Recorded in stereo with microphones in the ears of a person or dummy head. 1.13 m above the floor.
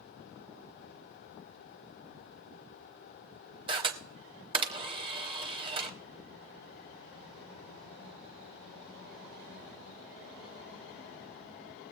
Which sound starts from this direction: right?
A camera shutter, at 3.7 s.